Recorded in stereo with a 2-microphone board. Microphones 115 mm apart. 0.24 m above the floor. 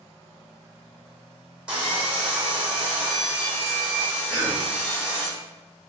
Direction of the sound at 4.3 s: 10° right (ahead or behind).